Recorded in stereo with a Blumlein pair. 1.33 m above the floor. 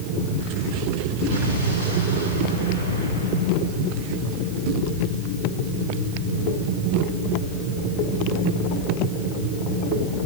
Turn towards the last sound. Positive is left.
turn(degrees=65)